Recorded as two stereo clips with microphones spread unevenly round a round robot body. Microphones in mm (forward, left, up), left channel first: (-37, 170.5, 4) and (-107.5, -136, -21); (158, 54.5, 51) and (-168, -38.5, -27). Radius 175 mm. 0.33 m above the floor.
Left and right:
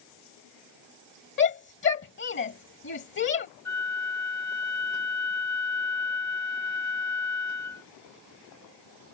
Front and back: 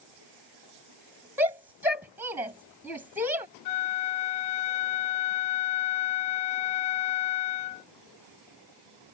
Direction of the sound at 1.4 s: 125° left.